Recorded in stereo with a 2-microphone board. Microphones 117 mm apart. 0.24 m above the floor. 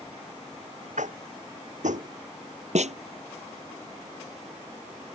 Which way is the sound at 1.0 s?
85° right.